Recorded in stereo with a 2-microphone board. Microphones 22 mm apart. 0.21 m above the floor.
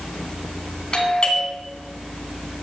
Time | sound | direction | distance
0.9 | a doorbell | 35° left (ahead or behind) | 2.5 m